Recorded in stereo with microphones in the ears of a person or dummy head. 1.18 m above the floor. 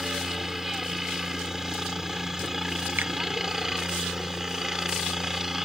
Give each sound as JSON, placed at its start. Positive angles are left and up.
{"t": 0.0, "sound": "a helicopter", "side_deg": 0}
{"t": 3.0, "sound": "a finger snap", "side_deg": -10}